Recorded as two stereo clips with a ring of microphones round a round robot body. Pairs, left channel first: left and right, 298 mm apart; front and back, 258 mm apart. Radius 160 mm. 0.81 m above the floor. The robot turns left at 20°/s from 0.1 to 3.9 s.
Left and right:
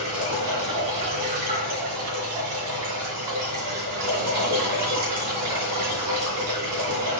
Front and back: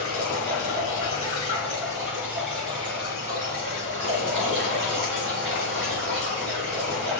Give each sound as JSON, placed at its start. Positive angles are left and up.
{"t": 0.0, "sound": "running water", "azimuth_deg": -50, "distance_m": 2.0}